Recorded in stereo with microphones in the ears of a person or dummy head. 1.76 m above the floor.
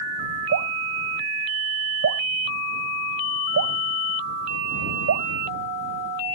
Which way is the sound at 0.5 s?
85° right.